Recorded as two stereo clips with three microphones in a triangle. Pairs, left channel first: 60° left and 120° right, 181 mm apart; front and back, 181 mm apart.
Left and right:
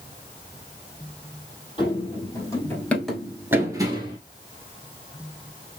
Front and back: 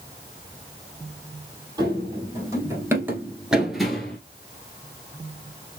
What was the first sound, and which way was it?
Running footsteps, 115° left.